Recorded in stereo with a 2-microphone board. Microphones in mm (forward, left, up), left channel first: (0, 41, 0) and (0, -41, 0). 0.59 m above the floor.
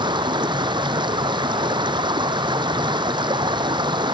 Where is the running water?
70° right (ahead or behind).